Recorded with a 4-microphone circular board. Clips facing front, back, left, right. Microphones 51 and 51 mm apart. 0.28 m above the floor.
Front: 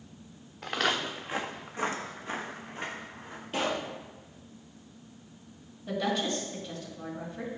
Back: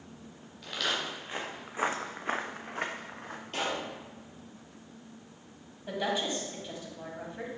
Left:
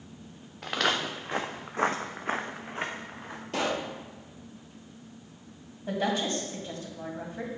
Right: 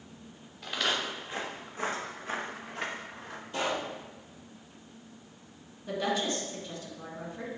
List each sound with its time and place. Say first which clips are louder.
0.6 s footsteps: front 4 dB, left 3 dB; 45° left, 1.3 m; by 3.4 s 165° left, 1.8 m
3.5 s a pop: front 3 dB, left 2 dB; 85° left, 1.8 m
5.9 s a woman speaking: front 1 dB, left 2 dB; 115° left, 1.8 m